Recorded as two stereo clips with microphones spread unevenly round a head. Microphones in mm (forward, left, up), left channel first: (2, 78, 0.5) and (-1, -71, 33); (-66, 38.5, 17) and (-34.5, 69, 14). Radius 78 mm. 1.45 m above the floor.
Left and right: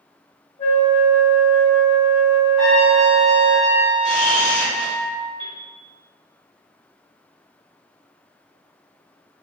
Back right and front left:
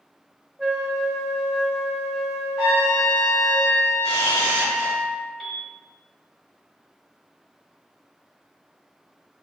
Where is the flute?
120° left, 1.4 m.